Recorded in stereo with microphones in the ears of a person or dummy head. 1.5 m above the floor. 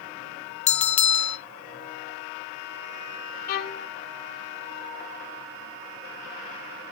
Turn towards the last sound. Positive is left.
turn(degrees=50)  # may be behind; listen again after turning